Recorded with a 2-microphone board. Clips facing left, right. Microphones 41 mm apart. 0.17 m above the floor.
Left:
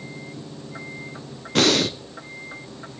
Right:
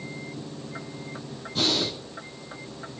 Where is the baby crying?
No baby crying in this recording.